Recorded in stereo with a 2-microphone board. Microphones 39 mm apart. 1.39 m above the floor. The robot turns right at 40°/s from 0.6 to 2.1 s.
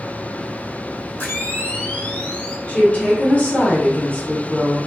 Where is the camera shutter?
110° left, 0.9 m; by 2.6 s 145° left, 0.9 m.